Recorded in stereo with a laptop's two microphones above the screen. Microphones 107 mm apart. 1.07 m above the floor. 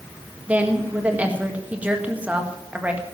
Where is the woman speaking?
10° right (ahead or behind), 1.6 m.